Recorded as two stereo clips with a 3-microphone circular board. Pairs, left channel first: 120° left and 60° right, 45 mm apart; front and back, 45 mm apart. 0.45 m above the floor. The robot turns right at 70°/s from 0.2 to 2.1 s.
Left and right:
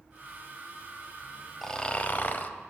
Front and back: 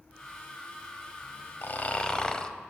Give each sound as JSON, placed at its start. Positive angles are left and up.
{"t": 1.6, "sound": "snoring", "azimuth_deg": 35, "distance_m": 0.6}